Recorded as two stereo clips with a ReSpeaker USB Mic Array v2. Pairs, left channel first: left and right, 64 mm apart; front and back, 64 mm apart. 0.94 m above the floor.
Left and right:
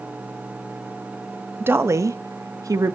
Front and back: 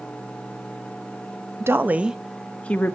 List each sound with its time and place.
1.6 s a woman speaking: 140° right, 1.0 m; by 3.0 s 60° right, 1.3 m